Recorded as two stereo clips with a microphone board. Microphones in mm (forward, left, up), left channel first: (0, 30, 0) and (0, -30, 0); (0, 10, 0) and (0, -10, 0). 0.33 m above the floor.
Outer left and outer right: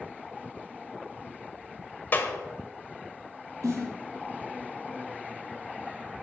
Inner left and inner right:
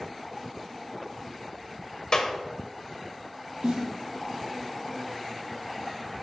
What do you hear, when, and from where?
2.1 s a clap: 35° left (ahead or behind), 1.1 m
3.6 s a snare drum: 70° right (ahead or behind), 4 m